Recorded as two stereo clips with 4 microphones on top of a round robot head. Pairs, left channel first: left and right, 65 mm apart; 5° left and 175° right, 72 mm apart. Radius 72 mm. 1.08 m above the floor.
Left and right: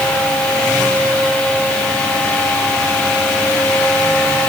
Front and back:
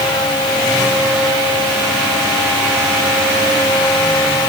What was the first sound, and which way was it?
Only background noise.